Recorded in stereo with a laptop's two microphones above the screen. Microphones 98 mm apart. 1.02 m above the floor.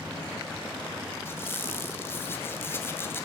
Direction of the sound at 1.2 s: 25° left (ahead or behind).